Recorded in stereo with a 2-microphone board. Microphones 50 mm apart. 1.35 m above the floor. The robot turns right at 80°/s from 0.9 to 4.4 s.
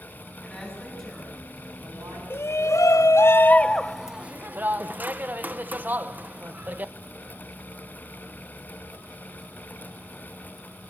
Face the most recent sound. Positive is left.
turn(degrees=-145)